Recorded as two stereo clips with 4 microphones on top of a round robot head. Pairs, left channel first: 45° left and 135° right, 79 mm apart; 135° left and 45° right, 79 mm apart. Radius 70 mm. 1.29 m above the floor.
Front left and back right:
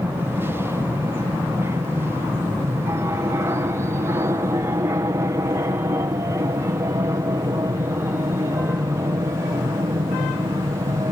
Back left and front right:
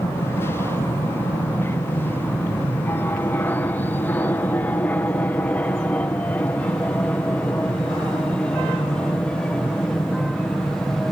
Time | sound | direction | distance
0.0 | an aircraft | straight behind | ?